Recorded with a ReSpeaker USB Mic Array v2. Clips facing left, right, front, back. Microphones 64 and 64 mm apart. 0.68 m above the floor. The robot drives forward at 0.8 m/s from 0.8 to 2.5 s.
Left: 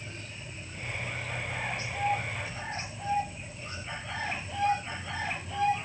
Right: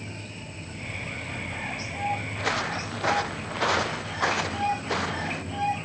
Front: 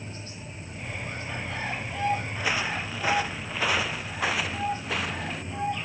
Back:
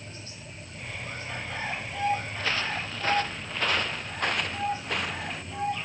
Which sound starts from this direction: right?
Footsteps, at 2.4 s.